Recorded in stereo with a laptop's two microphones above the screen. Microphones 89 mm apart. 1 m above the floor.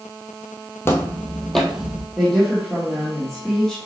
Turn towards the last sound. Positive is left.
turn(degrees=5)  # may be behind; listen again after turning